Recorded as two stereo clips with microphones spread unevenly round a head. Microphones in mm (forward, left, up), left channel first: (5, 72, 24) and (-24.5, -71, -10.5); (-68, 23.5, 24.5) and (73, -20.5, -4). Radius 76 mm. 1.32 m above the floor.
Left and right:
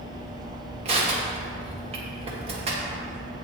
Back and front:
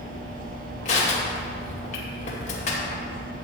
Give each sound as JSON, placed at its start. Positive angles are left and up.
{"t": 0.8, "sound": "crushing", "azimuth_deg": -150, "distance_m": 2.0}